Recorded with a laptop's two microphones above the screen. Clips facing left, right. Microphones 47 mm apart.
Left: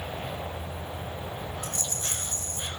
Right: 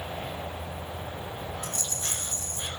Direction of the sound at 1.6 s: 40° left (ahead or behind).